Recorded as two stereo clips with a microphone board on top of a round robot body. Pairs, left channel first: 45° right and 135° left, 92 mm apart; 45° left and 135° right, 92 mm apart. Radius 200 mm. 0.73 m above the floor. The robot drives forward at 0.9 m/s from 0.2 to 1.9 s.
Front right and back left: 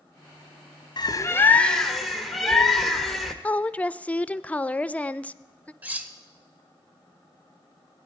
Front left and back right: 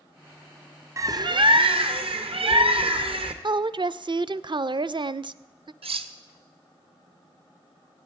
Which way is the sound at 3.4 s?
115° right.